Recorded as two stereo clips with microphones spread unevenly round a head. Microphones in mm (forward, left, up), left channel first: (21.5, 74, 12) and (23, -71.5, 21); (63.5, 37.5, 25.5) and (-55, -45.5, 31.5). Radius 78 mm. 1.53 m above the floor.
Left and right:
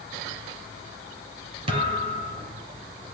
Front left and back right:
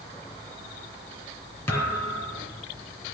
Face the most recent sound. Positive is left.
turn(degrees=-40)